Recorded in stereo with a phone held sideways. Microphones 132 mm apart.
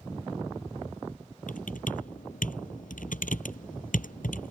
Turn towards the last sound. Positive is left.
turn(degrees=80)